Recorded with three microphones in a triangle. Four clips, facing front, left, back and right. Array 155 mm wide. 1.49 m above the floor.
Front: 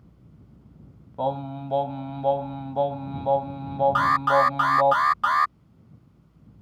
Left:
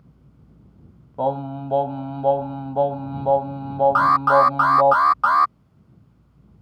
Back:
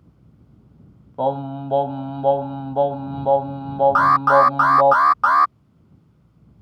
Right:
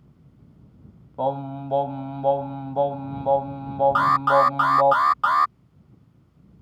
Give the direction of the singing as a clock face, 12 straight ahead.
7 o'clock.